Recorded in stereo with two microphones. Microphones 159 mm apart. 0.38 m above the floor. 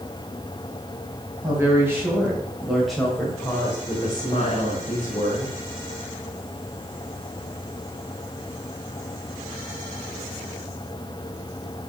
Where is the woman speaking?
20° right (ahead or behind), 2.5 m; by 5.5 s 55° left (ahead or behind), 2.0 m.